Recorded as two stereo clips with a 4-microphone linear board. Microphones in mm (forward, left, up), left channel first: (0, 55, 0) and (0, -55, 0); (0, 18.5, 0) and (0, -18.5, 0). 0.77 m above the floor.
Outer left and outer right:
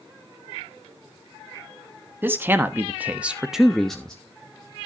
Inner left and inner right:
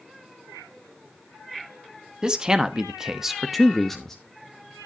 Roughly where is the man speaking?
Centre.